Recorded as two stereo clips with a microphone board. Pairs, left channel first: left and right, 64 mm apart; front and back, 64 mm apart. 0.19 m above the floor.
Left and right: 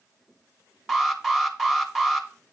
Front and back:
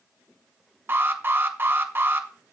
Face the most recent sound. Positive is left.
turn(degrees=-170)